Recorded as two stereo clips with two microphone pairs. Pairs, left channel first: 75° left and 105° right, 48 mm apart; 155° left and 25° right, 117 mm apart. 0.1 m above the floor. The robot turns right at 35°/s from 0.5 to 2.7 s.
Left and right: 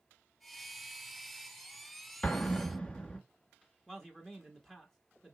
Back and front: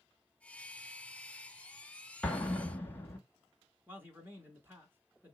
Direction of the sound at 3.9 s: 10° left.